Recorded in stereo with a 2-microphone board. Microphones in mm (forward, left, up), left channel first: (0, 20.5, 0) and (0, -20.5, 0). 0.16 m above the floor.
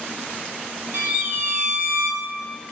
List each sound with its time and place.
0.9 s a violin: 70° right (ahead or behind), 1.4 m